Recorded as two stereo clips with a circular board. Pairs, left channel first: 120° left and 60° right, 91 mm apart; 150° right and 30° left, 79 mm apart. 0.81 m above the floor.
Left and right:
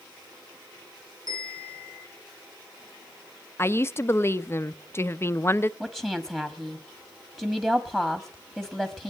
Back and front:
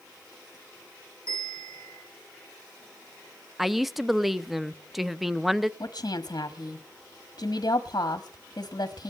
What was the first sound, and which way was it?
A bell, 20° right.